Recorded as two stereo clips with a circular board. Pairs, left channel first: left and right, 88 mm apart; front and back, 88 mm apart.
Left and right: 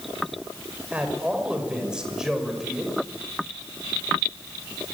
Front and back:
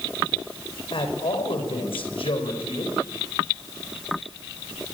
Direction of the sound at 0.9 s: 15° right.